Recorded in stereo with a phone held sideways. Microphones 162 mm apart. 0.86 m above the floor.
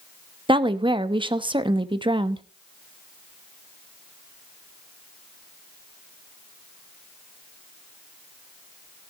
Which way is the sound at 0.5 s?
30° right (ahead or behind).